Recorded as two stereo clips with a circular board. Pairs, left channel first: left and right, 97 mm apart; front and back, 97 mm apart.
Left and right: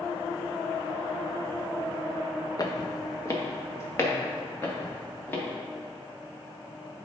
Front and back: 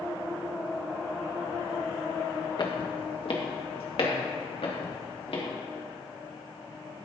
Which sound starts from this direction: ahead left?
Footsteps, at 2.6 s.